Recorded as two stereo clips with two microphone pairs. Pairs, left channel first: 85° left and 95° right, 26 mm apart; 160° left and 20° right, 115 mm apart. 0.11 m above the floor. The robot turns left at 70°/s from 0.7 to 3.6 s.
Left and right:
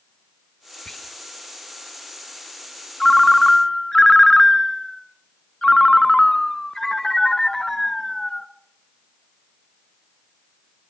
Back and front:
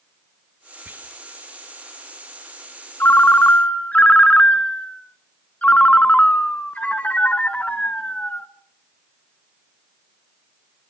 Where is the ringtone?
150° left, 0.8 m; by 8.5 s 105° left, 0.8 m.